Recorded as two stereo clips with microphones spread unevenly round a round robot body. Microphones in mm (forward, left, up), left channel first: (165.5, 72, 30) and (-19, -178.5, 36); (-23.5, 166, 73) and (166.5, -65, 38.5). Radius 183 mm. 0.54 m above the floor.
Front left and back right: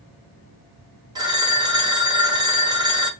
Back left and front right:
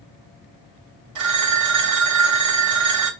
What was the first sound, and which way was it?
A phone ringing, 50° right.